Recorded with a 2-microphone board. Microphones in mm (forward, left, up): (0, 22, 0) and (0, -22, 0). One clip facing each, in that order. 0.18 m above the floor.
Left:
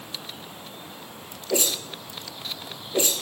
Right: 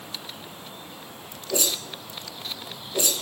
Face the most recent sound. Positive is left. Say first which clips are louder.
# left 2 dB
turn(degrees=30)  # may be behind; listen again after turning